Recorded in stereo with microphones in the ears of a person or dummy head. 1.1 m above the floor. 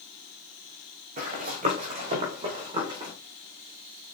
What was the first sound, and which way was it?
Running footsteps, 50° right (ahead or behind).